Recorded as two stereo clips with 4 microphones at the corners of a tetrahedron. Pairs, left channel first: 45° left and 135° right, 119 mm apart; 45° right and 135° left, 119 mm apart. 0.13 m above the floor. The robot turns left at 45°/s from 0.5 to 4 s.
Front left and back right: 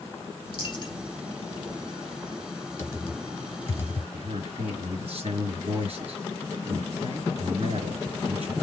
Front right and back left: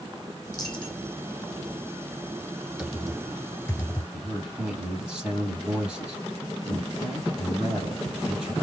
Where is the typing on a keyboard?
70° left, 1.5 m; by 4.0 s 15° left, 1.5 m.